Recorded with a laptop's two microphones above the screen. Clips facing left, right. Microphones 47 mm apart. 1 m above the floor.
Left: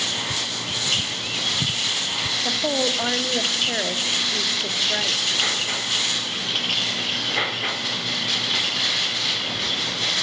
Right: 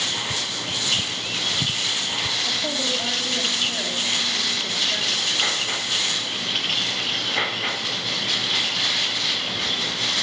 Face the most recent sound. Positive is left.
turn(degrees=40)  # may be behind; listen again after turning